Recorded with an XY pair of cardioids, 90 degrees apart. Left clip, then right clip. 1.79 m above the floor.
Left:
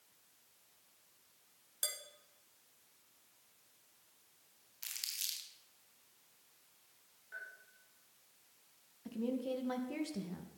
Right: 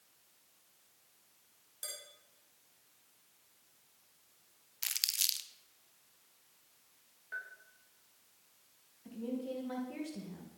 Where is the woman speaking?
45° left, 2.5 m.